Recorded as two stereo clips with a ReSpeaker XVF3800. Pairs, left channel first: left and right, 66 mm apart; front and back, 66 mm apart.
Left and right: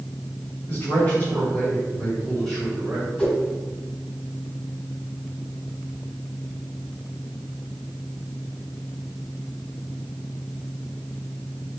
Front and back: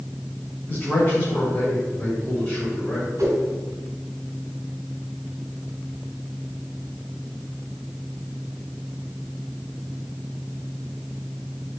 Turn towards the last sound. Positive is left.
turn(degrees=160)